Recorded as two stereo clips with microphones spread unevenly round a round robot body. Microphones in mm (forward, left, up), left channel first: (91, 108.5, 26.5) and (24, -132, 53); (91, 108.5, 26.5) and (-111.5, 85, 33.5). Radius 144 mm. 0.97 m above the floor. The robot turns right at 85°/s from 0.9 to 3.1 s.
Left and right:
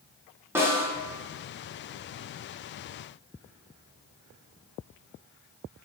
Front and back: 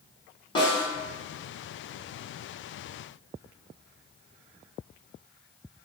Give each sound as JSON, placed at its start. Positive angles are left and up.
{"t": 0.6, "sound": "a snare drum", "azimuth_deg": -20, "distance_m": 0.7}